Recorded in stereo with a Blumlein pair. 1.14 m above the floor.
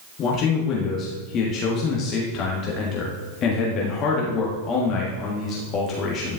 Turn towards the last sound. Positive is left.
turn(degrees=35)